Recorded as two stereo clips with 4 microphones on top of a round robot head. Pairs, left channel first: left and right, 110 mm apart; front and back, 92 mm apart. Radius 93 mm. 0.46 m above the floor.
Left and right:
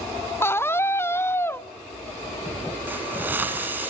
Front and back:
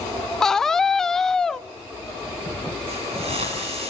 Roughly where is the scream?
Left.